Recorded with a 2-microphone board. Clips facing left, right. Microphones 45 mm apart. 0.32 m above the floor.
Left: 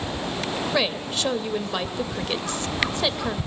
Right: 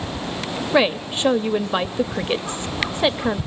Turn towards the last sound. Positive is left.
turn(degrees=-25)  # may be behind; listen again after turning